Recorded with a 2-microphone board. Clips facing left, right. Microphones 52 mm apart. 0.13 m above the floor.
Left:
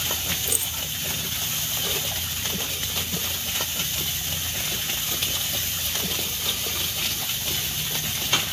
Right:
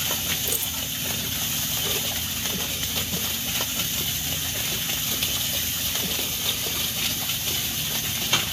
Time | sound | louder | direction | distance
0.5 | keys jangling | even | 15° left (ahead or behind) | 0.8 m